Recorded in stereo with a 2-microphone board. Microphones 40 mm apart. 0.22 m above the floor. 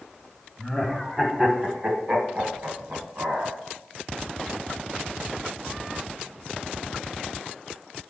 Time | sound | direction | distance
0.6 | laughter | 5° left (ahead or behind) | 1.0 m